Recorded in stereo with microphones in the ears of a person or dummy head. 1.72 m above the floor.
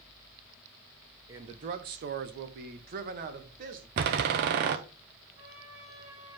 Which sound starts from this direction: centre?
A man speaking, at 1.3 s.